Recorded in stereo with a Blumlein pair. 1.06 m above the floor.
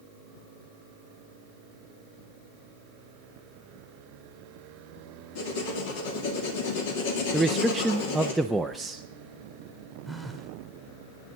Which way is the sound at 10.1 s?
5° left.